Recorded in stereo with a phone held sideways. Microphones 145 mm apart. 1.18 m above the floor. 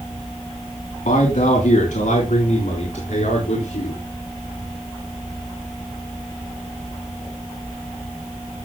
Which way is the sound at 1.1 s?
70° left (ahead or behind).